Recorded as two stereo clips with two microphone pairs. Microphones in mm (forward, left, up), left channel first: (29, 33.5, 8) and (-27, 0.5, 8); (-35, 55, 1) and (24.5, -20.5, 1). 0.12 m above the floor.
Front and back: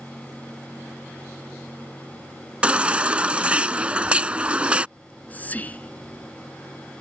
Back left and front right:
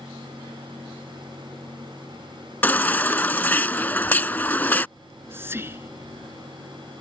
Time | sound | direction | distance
2.6 | a baby crying | 165° left | ?
5.0 | whispering | 10° right | ?